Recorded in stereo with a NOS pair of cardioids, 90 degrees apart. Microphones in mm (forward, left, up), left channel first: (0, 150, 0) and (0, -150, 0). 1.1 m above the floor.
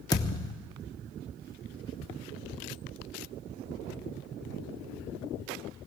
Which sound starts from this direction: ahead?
A thud, at 0.1 s.